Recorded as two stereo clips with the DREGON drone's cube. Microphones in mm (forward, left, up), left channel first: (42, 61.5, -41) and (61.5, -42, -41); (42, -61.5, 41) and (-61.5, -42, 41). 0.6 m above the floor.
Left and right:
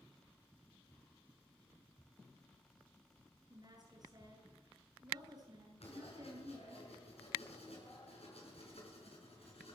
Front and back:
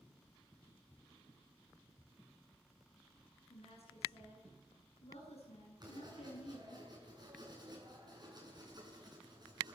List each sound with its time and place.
3.5 s a woman speaking: 25° right, 8.5 m
5.8 s writing: 120° left, 7.5 m